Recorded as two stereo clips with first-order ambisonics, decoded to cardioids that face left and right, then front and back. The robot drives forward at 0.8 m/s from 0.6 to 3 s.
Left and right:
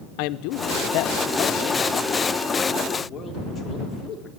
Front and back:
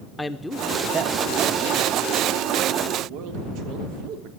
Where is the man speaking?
80° left, 0.6 m; by 4.3 s 160° left, 1.9 m.